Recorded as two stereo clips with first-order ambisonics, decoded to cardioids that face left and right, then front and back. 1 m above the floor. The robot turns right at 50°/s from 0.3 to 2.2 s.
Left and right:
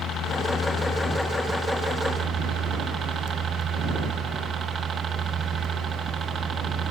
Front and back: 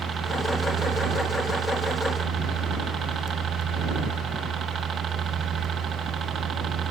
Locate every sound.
0.0 s a helicopter: 125° left; by 6.9 s 140° right